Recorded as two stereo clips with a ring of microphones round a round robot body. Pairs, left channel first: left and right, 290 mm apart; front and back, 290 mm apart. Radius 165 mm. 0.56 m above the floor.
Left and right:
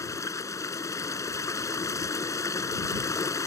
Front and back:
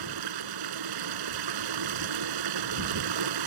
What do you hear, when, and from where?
0.0 s running water: 170° left